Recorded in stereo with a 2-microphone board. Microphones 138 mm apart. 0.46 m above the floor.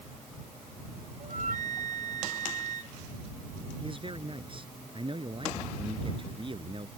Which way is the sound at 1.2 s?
70° right (ahead or behind).